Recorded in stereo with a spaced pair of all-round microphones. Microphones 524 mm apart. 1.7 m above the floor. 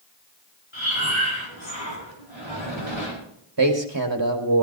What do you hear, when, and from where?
0.7 s breathing: 60° left (ahead or behind), 5 m
3.6 s a man speaking: 40° right (ahead or behind), 1.5 m